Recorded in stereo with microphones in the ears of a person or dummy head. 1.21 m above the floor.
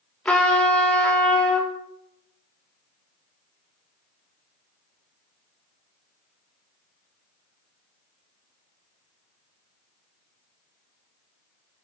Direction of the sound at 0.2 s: 5° left (ahead or behind).